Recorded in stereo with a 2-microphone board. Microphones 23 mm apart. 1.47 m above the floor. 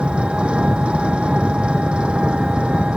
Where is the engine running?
55° right (ahead or behind).